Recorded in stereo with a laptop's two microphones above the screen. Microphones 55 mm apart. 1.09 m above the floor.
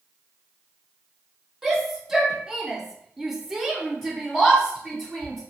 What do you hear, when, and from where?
1.6 s a shout: 5° right (ahead or behind), 1.1 m; by 5.4 s centre (ahead or behind), 1.3 m